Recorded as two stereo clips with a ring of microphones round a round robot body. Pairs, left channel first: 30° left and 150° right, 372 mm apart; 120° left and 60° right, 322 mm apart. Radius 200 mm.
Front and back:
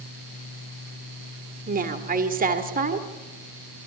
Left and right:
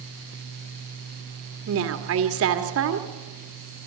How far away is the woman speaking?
About 1.6 m.